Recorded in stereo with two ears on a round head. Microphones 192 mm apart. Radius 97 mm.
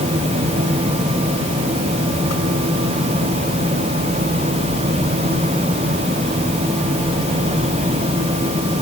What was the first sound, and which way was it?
Only background noise.